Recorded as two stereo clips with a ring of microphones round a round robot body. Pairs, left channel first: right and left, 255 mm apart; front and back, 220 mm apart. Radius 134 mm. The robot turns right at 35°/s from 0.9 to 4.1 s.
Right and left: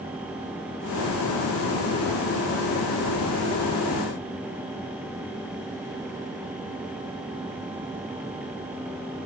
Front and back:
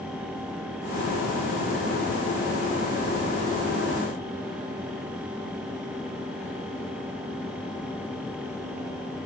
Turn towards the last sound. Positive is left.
No sound to turn to.